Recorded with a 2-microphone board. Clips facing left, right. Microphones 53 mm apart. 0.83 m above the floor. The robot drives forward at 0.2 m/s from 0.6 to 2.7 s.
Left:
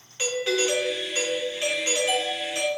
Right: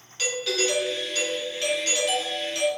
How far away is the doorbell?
About 0.8 m.